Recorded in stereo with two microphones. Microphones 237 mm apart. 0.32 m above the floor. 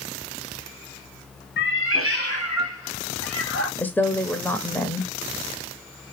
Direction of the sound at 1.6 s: 45° left (ahead or behind).